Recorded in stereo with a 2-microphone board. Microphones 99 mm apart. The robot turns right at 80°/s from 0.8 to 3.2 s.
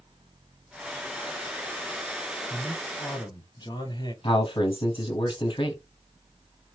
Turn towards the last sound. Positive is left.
turn(degrees=60)  # may be behind; listen again after turning